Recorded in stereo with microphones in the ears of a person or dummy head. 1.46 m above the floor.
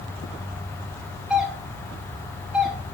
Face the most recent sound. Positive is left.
turn(degrees=-5)  # may be behind; listen again after turning